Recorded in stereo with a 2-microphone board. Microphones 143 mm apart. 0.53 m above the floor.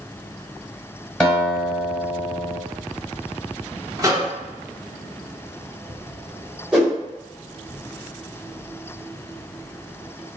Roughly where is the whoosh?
Centre.